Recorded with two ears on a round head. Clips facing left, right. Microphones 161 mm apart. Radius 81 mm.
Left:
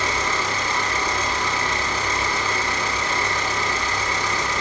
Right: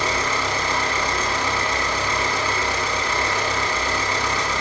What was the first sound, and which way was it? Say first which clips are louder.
An engine running: right 1 dB; 50° right (ahead or behind).